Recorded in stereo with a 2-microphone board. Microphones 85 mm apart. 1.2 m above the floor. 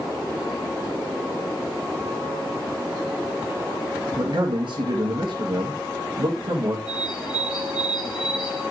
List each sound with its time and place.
4.1 s a man speaking: 70° right (ahead or behind), 1.4 m
6.9 s a bird: 55° left (ahead or behind), 5.5 m